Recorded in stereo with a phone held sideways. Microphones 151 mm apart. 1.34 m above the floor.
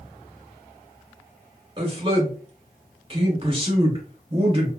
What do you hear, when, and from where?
1.8 s a man speaking: 35° right (ahead or behind), 2.0 m